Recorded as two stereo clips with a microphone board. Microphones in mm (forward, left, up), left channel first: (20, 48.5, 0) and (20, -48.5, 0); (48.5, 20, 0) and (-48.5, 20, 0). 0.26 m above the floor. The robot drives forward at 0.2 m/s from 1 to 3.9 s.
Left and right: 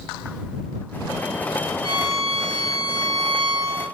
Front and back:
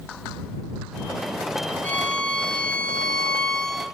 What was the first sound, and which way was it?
A violin, 75° right.